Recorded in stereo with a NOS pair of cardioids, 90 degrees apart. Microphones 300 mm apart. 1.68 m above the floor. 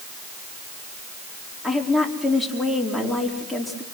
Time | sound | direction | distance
1.6 | a woman speaking | straight ahead | 5 m